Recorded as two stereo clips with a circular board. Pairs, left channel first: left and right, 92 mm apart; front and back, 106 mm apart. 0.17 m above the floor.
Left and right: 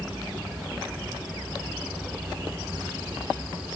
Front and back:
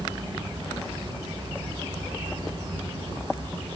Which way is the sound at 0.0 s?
160° right.